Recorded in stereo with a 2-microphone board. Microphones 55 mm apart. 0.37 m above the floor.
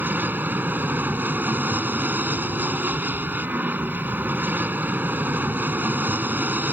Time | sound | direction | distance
0.0 | an aircraft | 35° right (ahead or behind) | ?